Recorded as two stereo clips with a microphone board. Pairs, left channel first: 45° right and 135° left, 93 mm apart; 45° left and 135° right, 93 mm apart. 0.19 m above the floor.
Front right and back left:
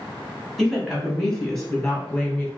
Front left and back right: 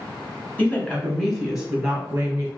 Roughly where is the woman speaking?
Ahead left.